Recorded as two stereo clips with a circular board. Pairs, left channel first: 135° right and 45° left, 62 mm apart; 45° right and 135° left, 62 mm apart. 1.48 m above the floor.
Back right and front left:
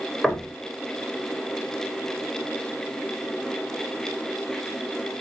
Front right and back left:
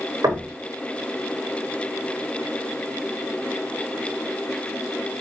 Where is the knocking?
145° left, 0.6 m.